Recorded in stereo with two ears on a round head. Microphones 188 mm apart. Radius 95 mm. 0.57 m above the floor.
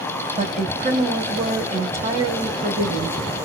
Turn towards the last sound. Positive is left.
turn(degrees=-30)  # may be behind; listen again after turning